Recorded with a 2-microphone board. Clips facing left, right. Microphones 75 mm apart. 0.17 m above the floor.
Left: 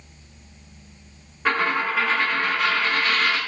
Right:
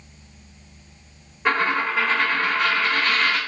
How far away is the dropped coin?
About 1.5 m.